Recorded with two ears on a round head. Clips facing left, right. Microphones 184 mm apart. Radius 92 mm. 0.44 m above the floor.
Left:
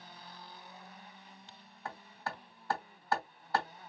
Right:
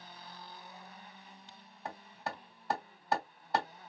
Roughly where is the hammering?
Centre.